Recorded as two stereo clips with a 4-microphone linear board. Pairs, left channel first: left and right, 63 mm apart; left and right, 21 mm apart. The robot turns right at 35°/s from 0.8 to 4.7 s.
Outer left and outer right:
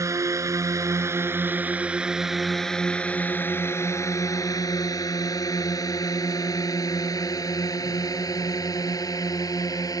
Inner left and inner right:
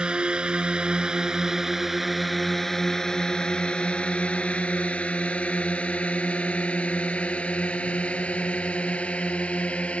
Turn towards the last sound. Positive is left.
turn(degrees=70)  # may be behind; listen again after turning